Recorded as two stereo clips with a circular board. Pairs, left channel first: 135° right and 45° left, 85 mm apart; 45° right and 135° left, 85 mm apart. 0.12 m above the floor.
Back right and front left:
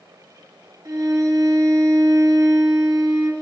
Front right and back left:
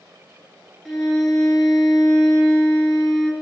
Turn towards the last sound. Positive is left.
turn(degrees=40)